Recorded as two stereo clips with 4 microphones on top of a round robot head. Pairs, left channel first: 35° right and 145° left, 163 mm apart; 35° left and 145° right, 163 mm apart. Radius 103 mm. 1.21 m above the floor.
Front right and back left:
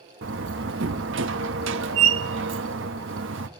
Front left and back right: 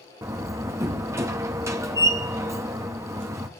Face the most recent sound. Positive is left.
turn(degrees=140)